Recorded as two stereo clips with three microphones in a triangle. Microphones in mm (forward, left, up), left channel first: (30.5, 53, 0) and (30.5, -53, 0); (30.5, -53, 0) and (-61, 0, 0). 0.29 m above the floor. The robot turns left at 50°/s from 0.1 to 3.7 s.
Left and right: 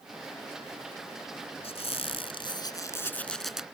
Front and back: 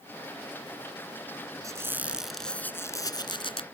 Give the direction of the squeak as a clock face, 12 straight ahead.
9 o'clock.